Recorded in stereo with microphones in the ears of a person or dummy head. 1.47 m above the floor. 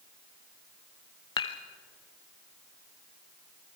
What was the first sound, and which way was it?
Dishes clattering, 25° left (ahead or behind).